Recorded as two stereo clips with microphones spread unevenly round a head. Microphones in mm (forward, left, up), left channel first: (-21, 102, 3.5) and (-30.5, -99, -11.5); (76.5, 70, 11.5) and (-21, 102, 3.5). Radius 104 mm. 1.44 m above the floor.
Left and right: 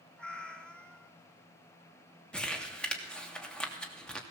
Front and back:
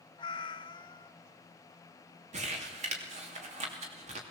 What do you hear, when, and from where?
0.2 s a cat meowing: 5° left, 1.0 m
2.3 s crumpling: 175° left, 3 m